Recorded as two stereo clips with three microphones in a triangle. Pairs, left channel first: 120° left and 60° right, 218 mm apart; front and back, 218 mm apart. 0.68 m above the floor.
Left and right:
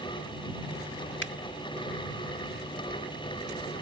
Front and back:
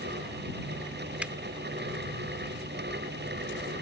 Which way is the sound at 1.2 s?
95° left.